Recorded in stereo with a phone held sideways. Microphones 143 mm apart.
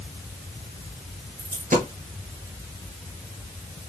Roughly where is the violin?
I don't hear a violin.